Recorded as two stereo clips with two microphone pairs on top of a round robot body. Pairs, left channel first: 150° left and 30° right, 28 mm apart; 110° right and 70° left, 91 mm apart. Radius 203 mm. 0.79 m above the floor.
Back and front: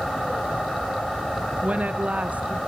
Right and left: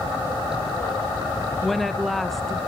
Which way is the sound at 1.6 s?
20° right.